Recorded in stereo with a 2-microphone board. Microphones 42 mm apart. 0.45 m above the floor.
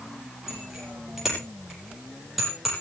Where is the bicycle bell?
15° right (ahead or behind), 9 m; by 2.7 s 5° right (ahead or behind), 10.5 m.